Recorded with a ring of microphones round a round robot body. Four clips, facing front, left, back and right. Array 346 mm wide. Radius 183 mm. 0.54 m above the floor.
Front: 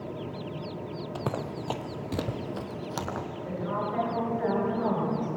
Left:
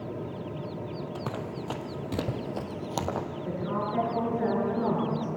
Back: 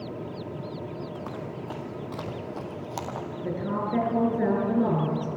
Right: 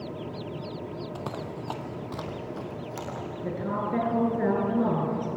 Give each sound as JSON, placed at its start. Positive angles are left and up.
{"t": 1.1, "sound": "running footsteps", "azimuth_deg": 5, "distance_m": 1.1}
{"t": 3.4, "sound": "a woman speaking", "azimuth_deg": -135, "distance_m": 8.5}